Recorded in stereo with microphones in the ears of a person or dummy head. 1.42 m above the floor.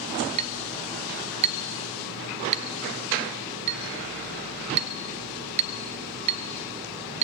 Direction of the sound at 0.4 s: 30° right (ahead or behind).